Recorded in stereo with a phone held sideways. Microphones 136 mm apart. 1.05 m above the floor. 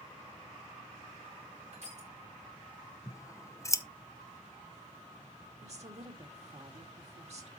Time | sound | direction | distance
1.7 | crushing | 60° right (ahead or behind) | 4.5 m
3.1 | scissors | 25° left (ahead or behind) | 0.7 m
5.6 | a woman speaking | 50° right (ahead or behind) | 2 m